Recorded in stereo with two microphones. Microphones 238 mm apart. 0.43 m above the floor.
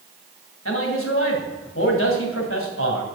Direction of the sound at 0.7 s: 60° left (ahead or behind).